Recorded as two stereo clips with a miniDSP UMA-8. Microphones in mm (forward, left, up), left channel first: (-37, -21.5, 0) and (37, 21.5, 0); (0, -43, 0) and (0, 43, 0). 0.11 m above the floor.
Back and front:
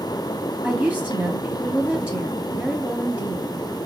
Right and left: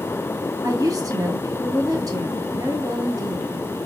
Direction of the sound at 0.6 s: 95° left.